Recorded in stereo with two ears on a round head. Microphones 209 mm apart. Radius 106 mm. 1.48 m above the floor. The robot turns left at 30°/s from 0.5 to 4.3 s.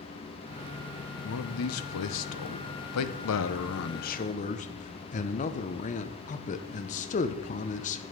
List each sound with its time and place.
1.2 s a man speaking: 125° left, 0.7 m; by 8.0 s 30° left, 0.7 m